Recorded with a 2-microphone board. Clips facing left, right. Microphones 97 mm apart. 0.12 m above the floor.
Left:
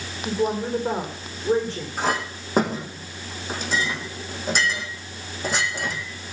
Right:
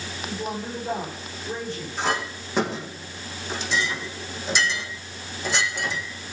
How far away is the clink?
About 4 m.